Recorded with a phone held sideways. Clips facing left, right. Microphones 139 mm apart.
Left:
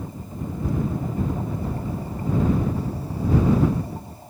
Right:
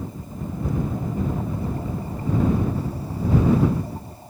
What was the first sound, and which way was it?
Only background noise.